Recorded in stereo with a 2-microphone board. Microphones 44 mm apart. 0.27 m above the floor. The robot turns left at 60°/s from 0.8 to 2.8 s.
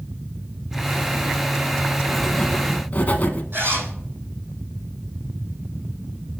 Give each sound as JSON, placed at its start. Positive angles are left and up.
{"t": 2.1, "sound": "writing", "azimuth_deg": -175, "distance_m": 0.7}
{"t": 3.5, "sound": "a zipper", "side_deg": -50, "distance_m": 4.5}